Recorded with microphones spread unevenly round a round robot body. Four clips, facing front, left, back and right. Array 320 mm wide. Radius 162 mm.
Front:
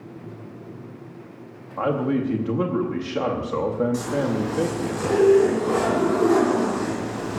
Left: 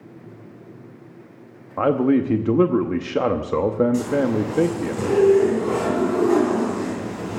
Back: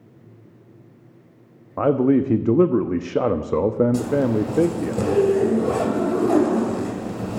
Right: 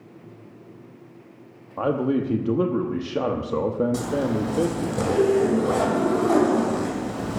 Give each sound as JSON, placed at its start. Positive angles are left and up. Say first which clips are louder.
{"t": 1.8, "sound": "a man speaking", "louder": "left 5 dB, back 5 dB", "azimuth_deg": 135, "distance_m": 0.8}
{"t": 3.9, "sound": "a zipper", "louder": "left 4 dB, back 4 dB", "azimuth_deg": -150, "distance_m": 2.5}